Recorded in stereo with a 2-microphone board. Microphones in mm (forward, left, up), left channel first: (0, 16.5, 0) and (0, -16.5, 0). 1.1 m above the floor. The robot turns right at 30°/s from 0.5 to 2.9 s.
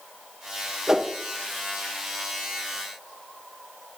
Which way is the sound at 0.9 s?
15° right (ahead or behind).